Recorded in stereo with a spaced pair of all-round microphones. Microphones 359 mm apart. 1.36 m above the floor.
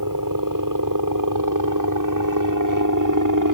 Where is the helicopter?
60° right (ahead or behind).